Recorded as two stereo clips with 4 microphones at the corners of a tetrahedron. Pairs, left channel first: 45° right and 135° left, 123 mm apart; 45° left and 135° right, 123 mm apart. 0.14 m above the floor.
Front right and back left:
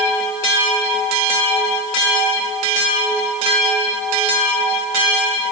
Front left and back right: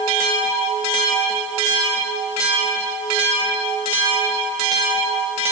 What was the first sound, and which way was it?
Only background noise.